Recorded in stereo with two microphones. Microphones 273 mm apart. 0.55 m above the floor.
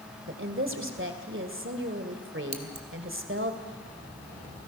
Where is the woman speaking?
45° right (ahead or behind), 2 m.